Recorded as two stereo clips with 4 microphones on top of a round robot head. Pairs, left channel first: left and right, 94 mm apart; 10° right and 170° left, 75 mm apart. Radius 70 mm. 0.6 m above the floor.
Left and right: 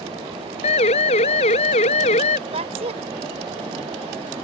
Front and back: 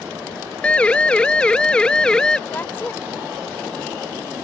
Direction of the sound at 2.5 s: 80° right.